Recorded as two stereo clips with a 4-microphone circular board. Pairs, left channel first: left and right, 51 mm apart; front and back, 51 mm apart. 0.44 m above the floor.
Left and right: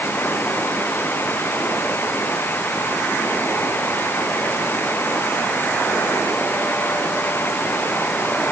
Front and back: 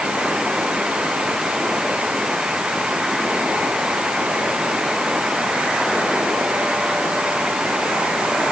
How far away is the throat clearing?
I don't hear throat clearing.